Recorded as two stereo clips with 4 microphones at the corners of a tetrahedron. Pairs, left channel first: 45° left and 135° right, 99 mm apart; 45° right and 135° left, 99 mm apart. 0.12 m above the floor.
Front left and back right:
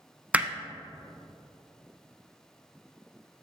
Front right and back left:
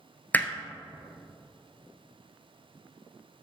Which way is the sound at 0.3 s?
85° right.